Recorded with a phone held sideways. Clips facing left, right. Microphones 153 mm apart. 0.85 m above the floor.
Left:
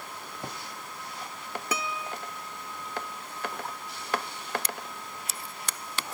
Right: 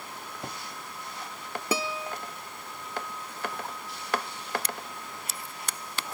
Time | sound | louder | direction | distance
1.7 | a guitar | right 4 dB | 30° right (ahead or behind) | ?